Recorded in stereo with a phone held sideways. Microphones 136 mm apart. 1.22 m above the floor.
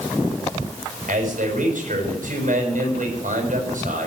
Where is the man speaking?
70° right (ahead or behind), 6.5 m.